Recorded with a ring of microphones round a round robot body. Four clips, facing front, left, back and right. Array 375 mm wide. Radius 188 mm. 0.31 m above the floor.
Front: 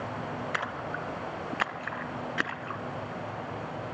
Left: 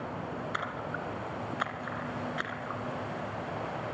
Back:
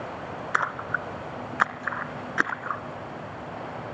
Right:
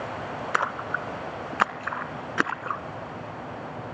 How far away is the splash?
About 1.3 m.